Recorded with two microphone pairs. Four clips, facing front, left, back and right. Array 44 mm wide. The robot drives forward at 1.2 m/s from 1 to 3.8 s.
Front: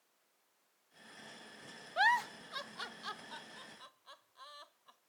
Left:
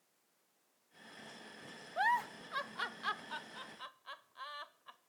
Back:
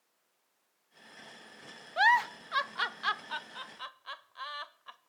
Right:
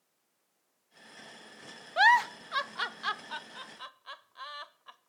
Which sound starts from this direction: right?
A giggle, at 2.0 s.